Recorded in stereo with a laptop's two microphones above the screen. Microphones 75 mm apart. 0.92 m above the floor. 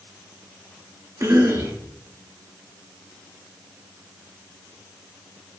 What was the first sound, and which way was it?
A cough, 40° right (ahead or behind).